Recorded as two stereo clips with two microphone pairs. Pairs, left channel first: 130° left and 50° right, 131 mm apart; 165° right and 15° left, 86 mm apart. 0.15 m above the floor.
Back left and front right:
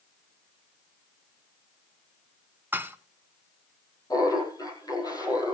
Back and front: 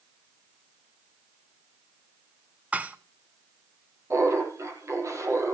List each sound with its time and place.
2.7 s dishes clattering: 15° right, 0.7 m
4.1 s laughter: 65° left, 5 m